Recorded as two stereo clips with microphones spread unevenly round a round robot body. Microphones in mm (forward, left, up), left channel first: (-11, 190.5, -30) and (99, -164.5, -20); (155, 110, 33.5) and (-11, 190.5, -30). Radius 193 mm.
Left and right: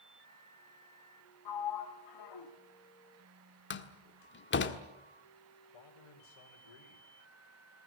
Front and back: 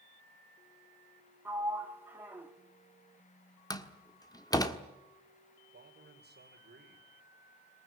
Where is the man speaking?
130° left, 3 m.